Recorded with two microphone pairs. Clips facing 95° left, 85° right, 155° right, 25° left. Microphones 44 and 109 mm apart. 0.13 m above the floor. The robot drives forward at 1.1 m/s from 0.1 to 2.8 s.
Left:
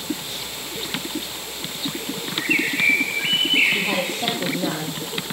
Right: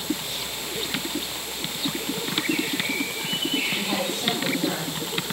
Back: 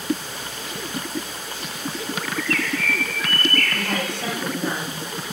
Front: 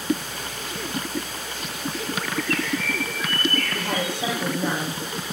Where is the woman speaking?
105° left, 4 m.